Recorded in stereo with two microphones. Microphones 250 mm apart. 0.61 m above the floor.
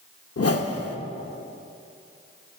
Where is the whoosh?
75° left (ahead or behind), 0.7 m.